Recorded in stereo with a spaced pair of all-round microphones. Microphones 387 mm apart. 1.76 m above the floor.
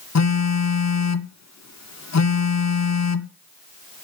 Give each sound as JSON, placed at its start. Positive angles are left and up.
{"t": 0.1, "sound": "a phone buzzing", "side_deg": 45, "distance_m": 0.6}